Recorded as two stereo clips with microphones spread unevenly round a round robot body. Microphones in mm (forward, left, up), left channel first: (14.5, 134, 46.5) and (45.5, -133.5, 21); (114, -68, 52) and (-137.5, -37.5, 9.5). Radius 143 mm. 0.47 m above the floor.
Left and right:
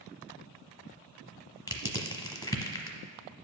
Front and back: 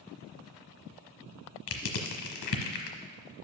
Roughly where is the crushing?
Ahead.